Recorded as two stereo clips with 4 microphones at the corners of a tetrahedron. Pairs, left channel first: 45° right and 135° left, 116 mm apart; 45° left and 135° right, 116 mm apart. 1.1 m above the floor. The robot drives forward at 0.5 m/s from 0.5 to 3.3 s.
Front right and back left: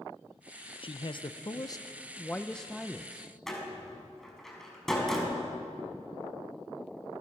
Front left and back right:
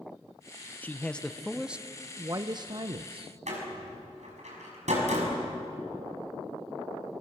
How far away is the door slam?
About 5.5 m.